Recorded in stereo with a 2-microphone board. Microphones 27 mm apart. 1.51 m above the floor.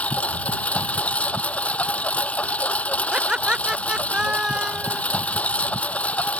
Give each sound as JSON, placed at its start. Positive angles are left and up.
{"t": 0.0, "sound": "a lawn mower", "side_deg": 60}
{"t": 3.1, "sound": "laughter", "side_deg": -35}